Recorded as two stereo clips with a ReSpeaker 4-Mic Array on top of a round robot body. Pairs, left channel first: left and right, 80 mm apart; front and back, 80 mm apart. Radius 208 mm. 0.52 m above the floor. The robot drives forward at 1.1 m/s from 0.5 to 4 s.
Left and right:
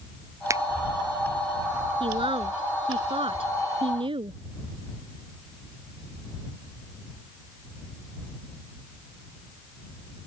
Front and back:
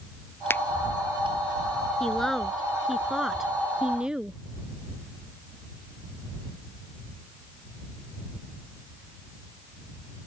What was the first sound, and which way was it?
A finger snap, 55° right.